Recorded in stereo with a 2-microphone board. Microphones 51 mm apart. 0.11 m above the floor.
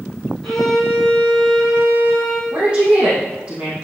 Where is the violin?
5° left (ahead or behind), 4 m.